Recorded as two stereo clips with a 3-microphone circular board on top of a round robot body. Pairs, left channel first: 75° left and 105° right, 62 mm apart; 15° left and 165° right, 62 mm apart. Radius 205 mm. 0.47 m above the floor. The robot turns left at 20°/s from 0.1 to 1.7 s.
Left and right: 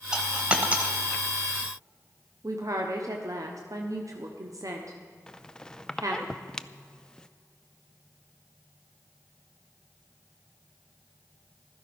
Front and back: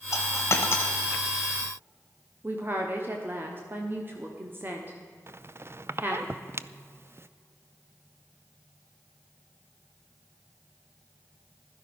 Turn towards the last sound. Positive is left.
turn(degrees=150)